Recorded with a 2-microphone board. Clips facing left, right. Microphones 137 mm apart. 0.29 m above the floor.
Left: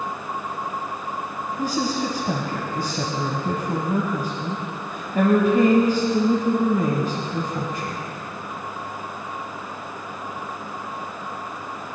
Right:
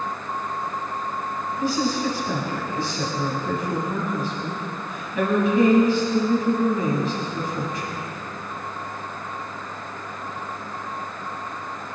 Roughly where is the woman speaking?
Left.